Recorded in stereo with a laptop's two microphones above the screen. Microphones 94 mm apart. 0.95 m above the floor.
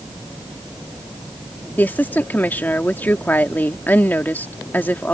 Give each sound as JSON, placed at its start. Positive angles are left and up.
{"t": 1.8, "sound": "a woman speaking", "side_deg": 15}